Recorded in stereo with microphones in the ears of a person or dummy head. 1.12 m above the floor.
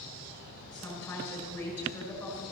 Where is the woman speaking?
5° left (ahead or behind), 6.5 m.